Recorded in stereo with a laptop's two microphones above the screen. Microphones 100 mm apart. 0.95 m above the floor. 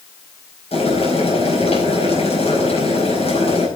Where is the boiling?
80° left, 5 m.